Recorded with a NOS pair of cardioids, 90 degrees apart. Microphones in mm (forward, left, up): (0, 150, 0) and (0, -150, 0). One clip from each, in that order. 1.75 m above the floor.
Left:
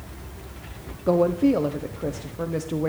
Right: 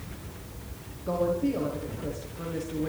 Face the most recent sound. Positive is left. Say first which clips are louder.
# left 7 dB
turn(degrees=60)